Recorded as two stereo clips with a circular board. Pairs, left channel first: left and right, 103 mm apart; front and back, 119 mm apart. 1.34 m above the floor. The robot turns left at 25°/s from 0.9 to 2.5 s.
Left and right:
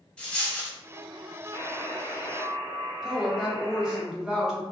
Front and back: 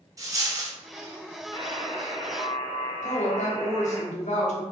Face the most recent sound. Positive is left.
turn(degrees=-5)